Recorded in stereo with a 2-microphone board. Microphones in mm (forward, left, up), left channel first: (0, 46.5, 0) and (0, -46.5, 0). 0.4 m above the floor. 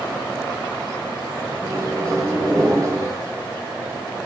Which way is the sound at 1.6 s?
40° right (ahead or behind).